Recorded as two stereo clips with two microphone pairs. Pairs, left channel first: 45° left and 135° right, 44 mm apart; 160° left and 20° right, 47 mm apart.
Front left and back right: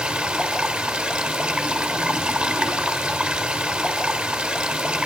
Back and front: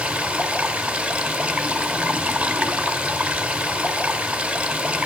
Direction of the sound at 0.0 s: 80° right.